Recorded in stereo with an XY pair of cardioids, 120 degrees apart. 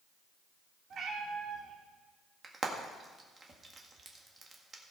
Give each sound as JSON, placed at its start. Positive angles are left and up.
{"t": 0.9, "sound": "a cat meowing", "azimuth_deg": -55, "distance_m": 2.0}
{"t": 2.4, "sound": "frying", "azimuth_deg": -30, "distance_m": 1.7}